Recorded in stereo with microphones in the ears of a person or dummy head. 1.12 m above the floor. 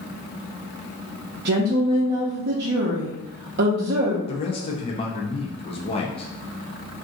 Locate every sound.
1.4 s a woman speaking: 50° right (ahead or behind), 0.6 m
4.3 s a man speaking: 25° left (ahead or behind), 0.6 m